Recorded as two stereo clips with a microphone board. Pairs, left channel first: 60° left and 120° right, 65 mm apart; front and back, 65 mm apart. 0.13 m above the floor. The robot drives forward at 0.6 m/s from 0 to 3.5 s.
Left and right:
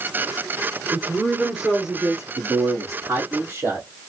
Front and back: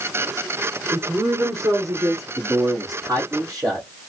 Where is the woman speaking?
165° left, 1.3 m; by 2.2 s 170° left, 1.9 m.